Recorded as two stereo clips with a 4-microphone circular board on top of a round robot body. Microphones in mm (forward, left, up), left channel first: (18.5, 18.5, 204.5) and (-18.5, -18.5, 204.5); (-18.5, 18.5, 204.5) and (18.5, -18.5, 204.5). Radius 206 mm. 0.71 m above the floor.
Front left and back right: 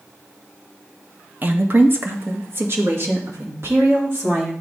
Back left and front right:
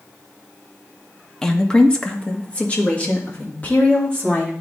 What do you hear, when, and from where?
1.4 s a woman speaking: 155° right, 1.2 m; by 4.5 s 165° right, 3.5 m